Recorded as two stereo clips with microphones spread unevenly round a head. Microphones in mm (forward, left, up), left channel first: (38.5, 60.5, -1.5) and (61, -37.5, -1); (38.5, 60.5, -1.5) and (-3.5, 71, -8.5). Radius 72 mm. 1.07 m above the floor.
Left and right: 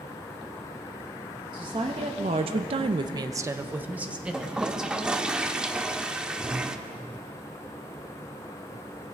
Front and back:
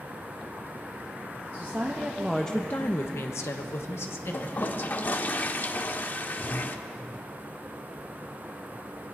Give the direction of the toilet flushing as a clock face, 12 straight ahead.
12 o'clock.